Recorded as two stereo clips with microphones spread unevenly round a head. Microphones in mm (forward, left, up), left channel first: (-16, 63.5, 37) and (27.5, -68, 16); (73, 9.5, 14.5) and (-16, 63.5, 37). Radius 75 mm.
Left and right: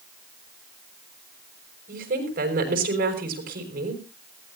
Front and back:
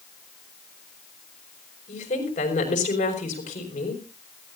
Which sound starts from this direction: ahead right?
A woman speaking, at 1.9 s.